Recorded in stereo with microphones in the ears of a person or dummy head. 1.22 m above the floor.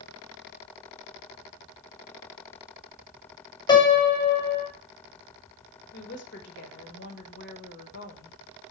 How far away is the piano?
About 1.2 m.